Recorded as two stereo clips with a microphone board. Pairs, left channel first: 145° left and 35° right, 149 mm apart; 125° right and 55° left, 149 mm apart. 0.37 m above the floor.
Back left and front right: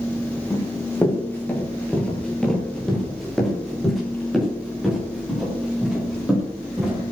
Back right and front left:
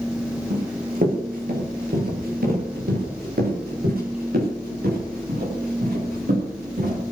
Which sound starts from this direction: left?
Running footsteps, at 0.5 s.